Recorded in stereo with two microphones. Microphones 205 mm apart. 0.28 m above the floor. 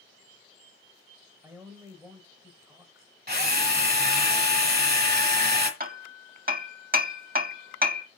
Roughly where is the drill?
Right.